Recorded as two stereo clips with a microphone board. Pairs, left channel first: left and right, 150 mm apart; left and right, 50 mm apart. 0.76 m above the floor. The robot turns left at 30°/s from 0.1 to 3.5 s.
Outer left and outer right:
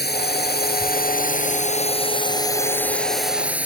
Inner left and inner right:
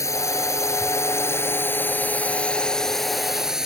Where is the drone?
95° left; by 3.7 s 10° right.